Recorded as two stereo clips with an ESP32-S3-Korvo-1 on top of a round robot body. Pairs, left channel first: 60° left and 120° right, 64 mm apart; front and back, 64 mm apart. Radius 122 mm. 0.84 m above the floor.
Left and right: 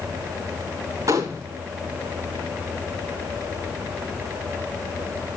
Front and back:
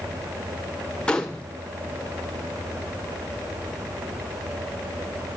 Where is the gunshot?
75° right, 0.6 m.